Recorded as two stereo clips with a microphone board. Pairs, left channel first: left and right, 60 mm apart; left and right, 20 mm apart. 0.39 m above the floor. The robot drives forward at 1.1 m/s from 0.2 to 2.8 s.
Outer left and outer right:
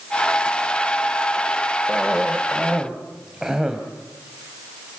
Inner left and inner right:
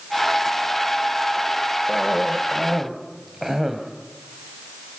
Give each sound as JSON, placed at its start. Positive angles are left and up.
{"t": 1.9, "sound": "a cough", "side_deg": -15, "distance_m": 1.4}